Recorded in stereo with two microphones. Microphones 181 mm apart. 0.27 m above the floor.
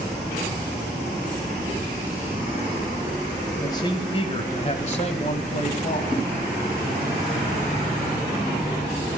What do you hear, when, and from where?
3.6 s a man speaking: 25° left (ahead or behind), 1.3 m; by 6.3 s 45° left (ahead or behind), 2 m